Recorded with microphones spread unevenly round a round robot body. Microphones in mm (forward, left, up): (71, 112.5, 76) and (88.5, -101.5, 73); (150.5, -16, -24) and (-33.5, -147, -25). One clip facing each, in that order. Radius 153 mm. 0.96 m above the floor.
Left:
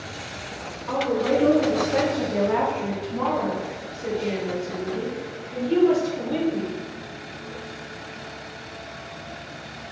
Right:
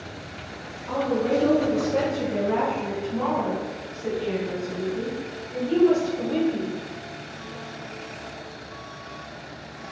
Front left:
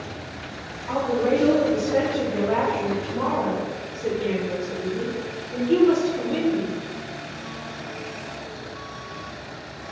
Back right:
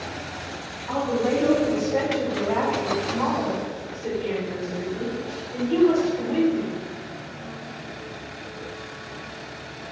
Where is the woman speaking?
125° left, 1.2 m; by 6.8 s 30° left, 3.5 m.